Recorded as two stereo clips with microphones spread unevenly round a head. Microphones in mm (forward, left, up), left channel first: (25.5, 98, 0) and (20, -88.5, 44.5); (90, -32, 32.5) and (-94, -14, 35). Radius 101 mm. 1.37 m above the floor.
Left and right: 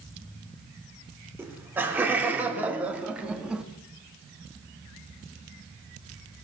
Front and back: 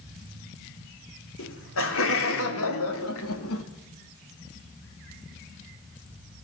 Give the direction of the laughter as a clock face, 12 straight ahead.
12 o'clock.